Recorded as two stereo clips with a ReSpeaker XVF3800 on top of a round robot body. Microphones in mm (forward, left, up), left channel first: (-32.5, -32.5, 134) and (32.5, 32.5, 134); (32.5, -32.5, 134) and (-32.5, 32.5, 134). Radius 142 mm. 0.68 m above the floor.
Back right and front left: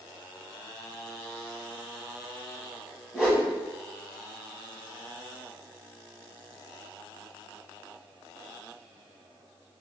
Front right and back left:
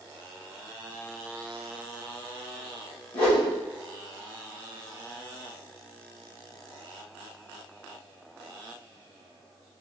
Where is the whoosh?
35° right, 1.3 m.